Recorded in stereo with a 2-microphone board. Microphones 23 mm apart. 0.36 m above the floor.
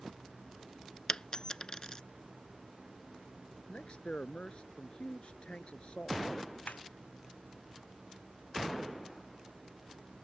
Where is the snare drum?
80° left.